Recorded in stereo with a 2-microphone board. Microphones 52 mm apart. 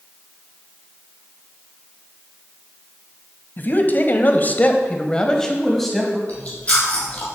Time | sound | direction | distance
3.6 | a man speaking | 40° left (ahead or behind) | 1.8 m
6.3 | chewing | 25° left (ahead or behind) | 6 m